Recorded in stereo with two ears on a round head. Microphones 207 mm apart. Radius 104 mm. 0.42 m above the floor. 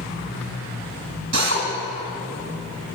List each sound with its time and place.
1.3 s a drill: 50° right (ahead or behind), 3 m